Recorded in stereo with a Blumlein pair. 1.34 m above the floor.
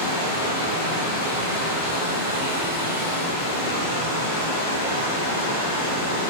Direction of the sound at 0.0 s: 70° left.